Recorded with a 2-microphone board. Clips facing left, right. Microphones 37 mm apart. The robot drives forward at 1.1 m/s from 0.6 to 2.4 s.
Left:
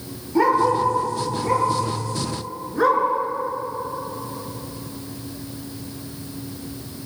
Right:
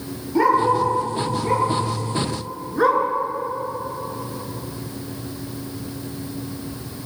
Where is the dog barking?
Centre (ahead or behind), 6.5 m; by 3.0 s 5° right (ahead or behind), 4.5 m.